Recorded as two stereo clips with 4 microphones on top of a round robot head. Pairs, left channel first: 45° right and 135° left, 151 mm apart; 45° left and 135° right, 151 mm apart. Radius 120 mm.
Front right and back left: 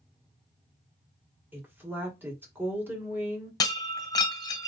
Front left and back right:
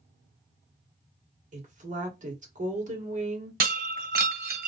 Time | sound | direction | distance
1.5 | a woman speaking | 150° right | 2 m
3.6 | breaking glass | 110° right | 1.3 m